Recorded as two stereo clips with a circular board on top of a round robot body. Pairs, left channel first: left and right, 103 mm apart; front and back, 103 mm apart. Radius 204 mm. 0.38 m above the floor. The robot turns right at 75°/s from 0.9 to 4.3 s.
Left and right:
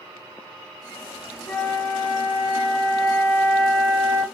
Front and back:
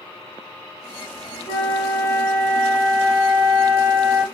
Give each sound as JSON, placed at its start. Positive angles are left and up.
{"t": 1.5, "sound": "a flute", "azimuth_deg": 10, "distance_m": 1.2}